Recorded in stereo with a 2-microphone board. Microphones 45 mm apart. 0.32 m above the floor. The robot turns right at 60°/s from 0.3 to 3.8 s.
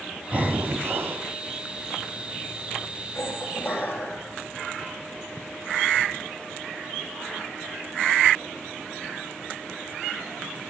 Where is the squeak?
105° left, 2.0 m; by 4.2 s 145° left, 2.0 m.